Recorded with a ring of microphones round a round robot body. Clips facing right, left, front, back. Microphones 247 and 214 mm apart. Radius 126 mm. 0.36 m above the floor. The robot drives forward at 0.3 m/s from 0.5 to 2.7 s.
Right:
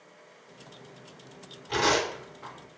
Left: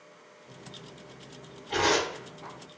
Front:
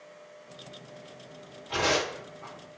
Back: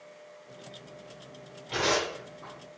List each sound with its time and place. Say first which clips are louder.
1.7 s tearing paper: even, front 1 dB; 115° right, 2.0 m; by 2.8 s 125° right, 2 m